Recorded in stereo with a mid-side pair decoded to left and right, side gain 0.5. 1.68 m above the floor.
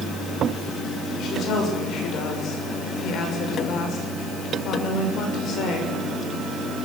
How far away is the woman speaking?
About 7 m.